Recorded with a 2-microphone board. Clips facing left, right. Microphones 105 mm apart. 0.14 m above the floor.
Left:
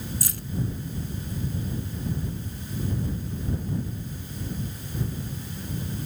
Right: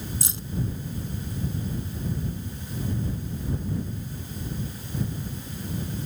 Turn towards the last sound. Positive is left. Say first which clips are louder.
# even
turn(degrees=-25)  # may be behind; listen again after turning